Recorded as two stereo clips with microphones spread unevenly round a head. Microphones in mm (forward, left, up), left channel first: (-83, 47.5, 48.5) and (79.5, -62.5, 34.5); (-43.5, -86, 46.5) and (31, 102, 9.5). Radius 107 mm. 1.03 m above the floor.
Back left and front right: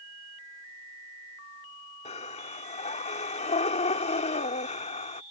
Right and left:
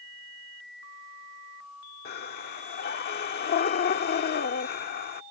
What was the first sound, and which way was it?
Breathing, 155° right.